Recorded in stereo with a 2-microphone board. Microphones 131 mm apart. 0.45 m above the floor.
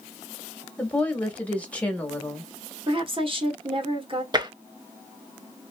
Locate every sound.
0.8 s a woman speaking: 10° left (ahead or behind), 1.1 m
2.9 s a woman speaking: 40° right (ahead or behind), 1.0 m
4.3 s tapping: 35° right (ahead or behind), 0.6 m